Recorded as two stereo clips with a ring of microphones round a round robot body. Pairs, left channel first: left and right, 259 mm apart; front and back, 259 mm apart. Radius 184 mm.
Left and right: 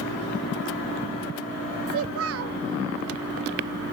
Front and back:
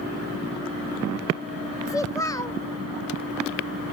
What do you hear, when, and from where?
1.9 s a child speaking: 75° right, 0.5 m